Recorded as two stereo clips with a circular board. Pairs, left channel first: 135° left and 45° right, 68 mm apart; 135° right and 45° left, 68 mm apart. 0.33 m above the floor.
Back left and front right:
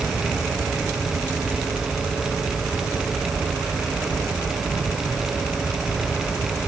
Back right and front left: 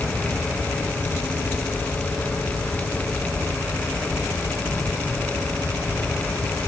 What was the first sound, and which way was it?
Only background noise.